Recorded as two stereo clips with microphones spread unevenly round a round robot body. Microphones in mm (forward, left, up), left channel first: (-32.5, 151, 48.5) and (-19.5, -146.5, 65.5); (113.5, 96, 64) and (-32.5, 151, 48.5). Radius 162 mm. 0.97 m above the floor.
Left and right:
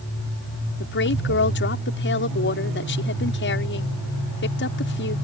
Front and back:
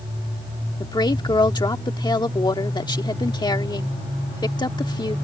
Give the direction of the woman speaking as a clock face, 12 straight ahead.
11 o'clock.